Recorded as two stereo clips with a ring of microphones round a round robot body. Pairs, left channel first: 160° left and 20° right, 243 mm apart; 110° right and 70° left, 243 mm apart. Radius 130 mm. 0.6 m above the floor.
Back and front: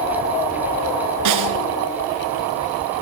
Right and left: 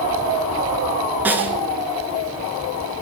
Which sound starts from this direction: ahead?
A snare drum, at 1.2 s.